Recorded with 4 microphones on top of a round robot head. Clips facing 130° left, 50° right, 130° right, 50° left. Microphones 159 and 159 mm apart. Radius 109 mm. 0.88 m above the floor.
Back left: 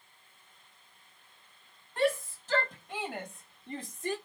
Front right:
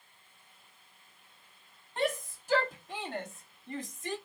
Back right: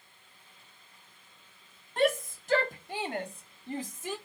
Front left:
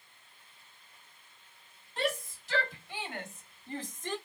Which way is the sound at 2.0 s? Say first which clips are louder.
Back left 3 dB, back right 7 dB; 115° right.